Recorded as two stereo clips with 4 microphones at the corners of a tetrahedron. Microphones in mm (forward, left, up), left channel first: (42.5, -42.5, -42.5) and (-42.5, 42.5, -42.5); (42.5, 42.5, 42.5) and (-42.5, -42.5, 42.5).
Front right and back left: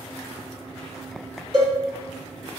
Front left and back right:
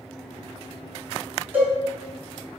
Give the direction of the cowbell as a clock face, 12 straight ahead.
7 o'clock.